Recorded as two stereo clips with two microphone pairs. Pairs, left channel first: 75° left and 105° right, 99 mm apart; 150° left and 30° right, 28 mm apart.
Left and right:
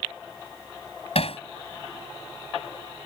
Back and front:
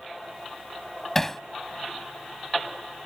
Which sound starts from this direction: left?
Hammering, at 1.1 s.